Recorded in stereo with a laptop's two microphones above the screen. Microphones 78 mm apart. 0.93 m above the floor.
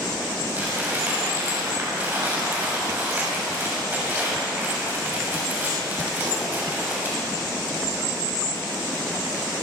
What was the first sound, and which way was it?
Crumpling, 25° right (ahead or behind).